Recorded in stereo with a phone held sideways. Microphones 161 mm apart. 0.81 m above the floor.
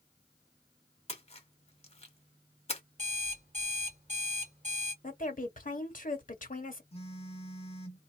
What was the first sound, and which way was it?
A splash, 40° left (ahead or behind).